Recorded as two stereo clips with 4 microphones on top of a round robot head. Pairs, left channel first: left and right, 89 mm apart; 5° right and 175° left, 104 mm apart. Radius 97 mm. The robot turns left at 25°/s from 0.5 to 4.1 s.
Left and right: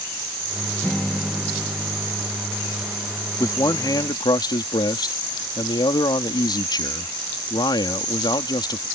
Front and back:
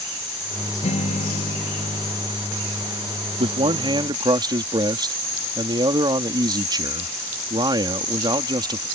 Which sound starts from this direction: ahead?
A guitar, at 0.8 s.